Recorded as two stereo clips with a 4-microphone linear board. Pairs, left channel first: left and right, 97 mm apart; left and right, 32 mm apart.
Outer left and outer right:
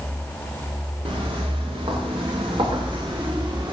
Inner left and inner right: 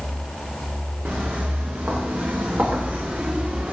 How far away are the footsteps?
About 3 m.